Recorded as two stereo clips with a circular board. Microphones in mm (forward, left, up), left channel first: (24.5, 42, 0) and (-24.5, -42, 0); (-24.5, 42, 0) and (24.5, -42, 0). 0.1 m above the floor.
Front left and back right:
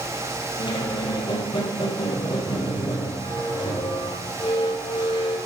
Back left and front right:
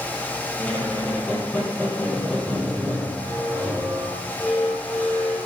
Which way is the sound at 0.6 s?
45° left.